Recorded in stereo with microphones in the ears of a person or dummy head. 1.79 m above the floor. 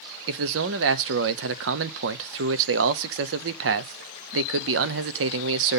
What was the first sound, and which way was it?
A man speaking, 65° right (ahead or behind).